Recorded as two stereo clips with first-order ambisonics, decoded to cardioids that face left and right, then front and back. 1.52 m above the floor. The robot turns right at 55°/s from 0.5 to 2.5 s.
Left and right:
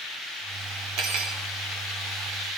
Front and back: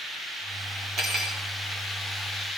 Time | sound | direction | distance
1.0 | cutlery clinking | 120° right | 3 m